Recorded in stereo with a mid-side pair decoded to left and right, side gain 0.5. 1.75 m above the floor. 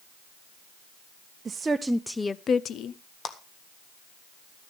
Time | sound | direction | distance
1.4 | a woman speaking | 30° right | 0.9 m
3.2 | a clap | 45° left | 1.6 m